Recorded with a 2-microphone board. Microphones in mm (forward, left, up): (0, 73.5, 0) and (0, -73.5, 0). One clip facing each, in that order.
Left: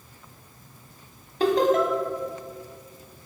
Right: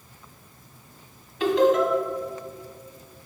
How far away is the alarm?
No alarm in this recording.